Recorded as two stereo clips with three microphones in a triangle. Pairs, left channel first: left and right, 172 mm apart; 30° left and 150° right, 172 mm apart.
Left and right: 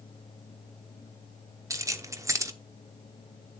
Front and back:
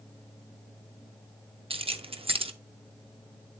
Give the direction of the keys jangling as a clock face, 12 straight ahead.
5 o'clock.